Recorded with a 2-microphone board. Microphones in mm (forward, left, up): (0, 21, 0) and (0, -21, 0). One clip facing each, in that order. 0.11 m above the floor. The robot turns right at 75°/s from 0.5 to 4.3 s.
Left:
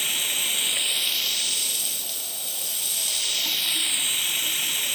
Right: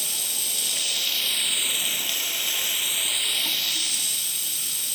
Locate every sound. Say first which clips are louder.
0.0 s running water: left 5 dB; 130° left, 1.0 m; by 5.0 s 55° left, 1.0 m